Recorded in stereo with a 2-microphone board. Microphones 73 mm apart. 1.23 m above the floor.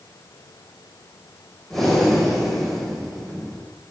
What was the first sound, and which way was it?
Breathing, 5° left (ahead or behind).